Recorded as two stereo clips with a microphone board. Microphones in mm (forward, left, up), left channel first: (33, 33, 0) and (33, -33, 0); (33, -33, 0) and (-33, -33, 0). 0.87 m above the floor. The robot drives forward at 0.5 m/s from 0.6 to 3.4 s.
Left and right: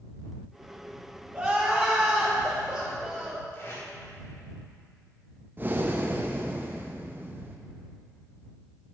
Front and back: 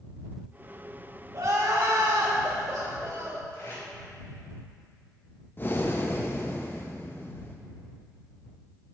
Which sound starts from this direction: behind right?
Crying, at 1.3 s.